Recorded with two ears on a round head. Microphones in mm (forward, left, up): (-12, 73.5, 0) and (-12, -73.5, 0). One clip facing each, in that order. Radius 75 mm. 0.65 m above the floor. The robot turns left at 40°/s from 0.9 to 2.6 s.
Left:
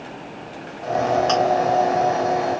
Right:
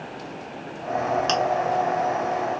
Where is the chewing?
35° right (ahead or behind), 1.4 m; by 1.4 s 40° right (ahead or behind), 1.4 m.